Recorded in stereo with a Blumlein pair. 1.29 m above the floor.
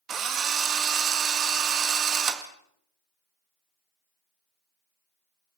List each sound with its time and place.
0.1 s a drill: 25° right, 1.9 m